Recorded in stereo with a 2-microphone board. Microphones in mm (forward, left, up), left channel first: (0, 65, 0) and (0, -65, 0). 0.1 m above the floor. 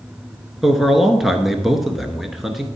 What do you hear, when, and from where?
0.6 s a man speaking: centre (ahead or behind), 1.1 m